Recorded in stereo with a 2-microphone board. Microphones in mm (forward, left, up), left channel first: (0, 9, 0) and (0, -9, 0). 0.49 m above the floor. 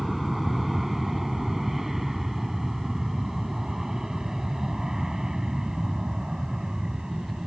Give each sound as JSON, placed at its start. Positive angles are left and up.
{"t": 0.0, "sound": "an aircraft", "side_deg": -10}